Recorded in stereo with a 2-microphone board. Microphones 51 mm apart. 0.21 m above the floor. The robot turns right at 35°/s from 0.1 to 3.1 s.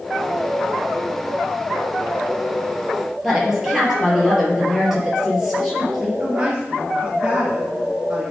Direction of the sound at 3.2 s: 5° right (ahead or behind).